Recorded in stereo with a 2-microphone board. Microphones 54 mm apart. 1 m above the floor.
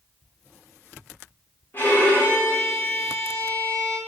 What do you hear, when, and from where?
1.7 s a violin: 40° left (ahead or behind), 1.0 m